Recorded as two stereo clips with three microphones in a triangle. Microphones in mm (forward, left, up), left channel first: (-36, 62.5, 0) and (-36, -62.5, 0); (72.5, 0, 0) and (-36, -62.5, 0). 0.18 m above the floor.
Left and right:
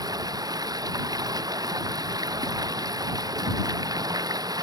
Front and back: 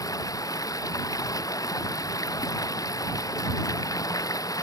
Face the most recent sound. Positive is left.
turn(degrees=-30)